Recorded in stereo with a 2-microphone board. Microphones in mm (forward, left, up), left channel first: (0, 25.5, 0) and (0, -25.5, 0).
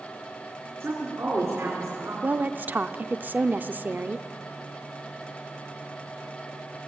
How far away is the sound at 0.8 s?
About 4 m.